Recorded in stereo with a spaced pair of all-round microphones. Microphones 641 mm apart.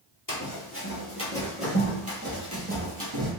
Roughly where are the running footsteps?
Left.